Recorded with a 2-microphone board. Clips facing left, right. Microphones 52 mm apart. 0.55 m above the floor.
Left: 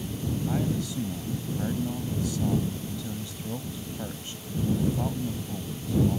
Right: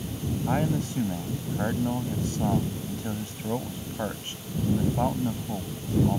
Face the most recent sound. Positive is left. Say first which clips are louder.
# right 4 dB
turn(degrees=-45)  # may be behind; listen again after turning